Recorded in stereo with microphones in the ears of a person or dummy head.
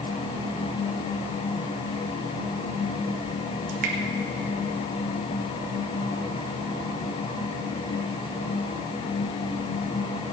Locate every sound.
3.7 s dripping: 45° right (ahead or behind), 1.3 m